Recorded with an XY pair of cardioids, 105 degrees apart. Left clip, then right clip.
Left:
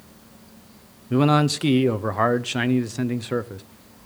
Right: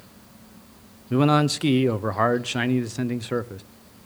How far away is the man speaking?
About 0.5 m.